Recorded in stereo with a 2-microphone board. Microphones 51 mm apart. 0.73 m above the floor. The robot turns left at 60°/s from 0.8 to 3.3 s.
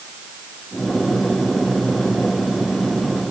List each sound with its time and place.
Only background noise.